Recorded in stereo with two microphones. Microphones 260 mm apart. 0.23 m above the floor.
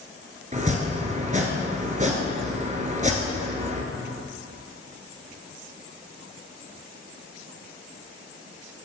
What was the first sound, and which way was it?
Chopping, 30° right (ahead or behind).